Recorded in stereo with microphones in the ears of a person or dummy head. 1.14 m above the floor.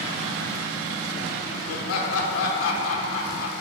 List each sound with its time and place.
1.7 s laughter: 85° left, 0.8 m